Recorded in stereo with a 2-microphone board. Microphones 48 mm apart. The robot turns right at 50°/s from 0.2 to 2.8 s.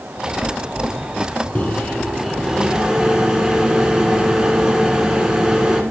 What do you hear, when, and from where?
1.6 s a microwave: 135° left, 1.4 m; by 5.8 s 165° right, 1.4 m